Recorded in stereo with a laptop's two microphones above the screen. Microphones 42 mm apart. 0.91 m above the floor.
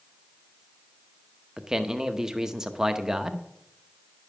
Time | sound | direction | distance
1.6 | a man speaking | 20° right (ahead or behind) | 0.9 m